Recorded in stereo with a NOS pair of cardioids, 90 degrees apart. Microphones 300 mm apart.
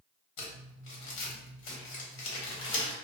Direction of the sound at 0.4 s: 65° left.